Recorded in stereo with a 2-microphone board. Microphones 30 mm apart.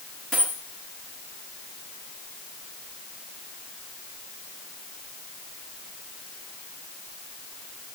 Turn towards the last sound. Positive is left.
turn(degrees=0)  # may be behind; listen again after turning